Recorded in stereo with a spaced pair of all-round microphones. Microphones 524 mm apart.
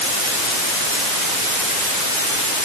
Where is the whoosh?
I don't hear a whoosh.